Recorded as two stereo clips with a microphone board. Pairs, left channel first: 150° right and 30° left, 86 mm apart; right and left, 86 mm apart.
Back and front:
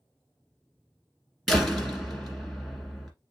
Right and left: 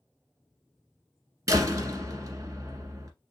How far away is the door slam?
About 1.6 m.